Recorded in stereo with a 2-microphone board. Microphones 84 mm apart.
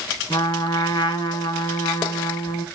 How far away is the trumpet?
About 3.5 m.